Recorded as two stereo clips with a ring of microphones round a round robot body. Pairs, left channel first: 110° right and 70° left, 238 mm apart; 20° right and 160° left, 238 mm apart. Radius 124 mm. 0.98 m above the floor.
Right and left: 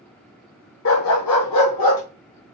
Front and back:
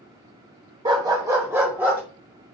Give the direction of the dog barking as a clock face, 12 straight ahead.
4 o'clock.